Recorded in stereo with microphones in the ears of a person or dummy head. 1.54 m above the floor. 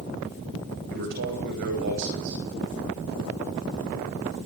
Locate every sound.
0.9 s a man speaking: 55° right (ahead or behind), 10 m